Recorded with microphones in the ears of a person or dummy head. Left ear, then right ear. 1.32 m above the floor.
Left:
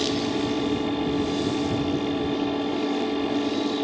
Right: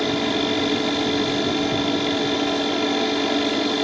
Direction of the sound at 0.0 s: 50° right (ahead or behind).